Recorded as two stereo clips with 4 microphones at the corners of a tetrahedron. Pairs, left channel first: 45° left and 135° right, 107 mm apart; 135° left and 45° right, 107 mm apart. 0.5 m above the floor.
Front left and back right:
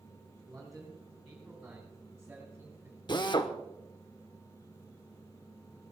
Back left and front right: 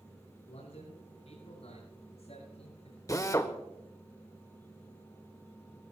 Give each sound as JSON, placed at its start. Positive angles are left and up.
{"t": 0.5, "sound": "a man speaking", "azimuth_deg": 135, "distance_m": 9.5}
{"t": 3.1, "sound": "a drill", "azimuth_deg": 80, "distance_m": 1.3}